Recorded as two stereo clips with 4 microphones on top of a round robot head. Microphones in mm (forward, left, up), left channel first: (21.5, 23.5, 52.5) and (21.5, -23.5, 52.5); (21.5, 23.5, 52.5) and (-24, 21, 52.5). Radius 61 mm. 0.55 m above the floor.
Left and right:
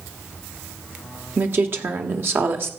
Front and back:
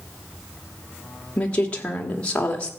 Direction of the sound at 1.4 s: 60° right.